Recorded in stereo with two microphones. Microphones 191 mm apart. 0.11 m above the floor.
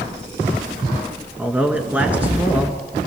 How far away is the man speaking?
About 1.4 m.